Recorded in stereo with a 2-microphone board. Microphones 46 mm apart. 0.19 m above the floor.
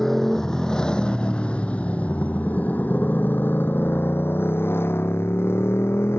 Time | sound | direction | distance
0.0 | a motorcycle | 10° left (ahead or behind) | ?